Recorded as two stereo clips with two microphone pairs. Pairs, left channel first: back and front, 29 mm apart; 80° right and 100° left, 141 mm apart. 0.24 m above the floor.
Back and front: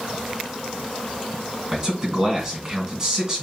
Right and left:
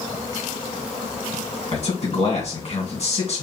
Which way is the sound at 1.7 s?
65° right.